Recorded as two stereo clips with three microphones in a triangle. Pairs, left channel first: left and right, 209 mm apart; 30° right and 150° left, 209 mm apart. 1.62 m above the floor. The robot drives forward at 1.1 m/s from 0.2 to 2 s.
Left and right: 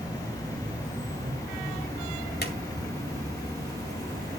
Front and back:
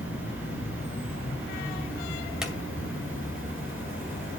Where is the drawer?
65° left, 2.5 m.